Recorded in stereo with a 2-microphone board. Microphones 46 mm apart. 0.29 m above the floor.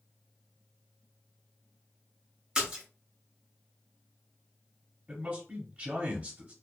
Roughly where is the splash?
Centre.